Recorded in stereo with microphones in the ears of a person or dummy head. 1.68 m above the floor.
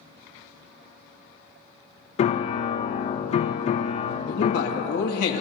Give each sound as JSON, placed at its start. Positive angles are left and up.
{"t": 2.2, "sound": "a piano", "side_deg": 40, "distance_m": 0.6}
{"t": 4.3, "sound": "a man speaking", "side_deg": 50, "distance_m": 1.9}